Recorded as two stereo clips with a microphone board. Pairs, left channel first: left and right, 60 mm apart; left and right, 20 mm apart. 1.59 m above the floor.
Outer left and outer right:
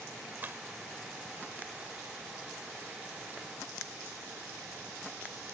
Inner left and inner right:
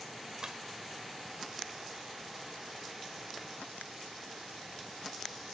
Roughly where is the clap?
Right.